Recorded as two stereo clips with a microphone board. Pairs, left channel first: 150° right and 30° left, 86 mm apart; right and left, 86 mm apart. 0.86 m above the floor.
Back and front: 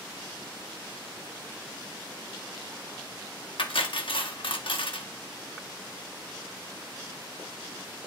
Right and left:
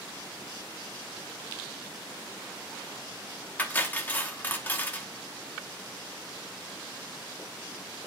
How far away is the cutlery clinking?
About 0.8 m.